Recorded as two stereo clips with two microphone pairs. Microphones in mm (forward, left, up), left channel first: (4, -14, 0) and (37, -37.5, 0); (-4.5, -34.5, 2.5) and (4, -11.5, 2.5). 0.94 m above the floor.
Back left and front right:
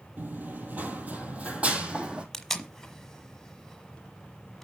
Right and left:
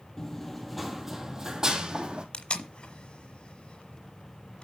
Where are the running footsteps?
45° right, 1.3 m; by 2.2 s 25° left, 1.9 m.